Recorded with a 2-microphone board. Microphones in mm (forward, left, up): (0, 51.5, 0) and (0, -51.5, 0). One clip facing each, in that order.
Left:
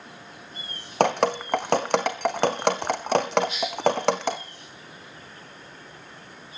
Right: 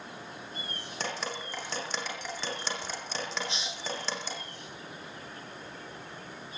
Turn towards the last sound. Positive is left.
turn(degrees=-30)  # may be behind; listen again after turning